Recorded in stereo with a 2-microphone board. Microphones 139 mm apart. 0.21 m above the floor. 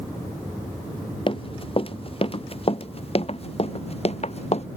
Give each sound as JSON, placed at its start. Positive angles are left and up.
{"t": 1.3, "sound": "running footsteps", "side_deg": 40}